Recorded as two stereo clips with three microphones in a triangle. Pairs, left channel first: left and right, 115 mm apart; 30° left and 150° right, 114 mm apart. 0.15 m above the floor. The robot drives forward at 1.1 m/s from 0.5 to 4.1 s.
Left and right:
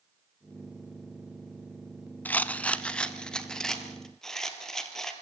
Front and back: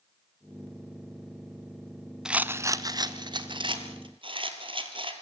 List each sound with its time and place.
2.2 s a rattle: 140° left, 0.8 m; by 5.1 s 175° left, 2.5 m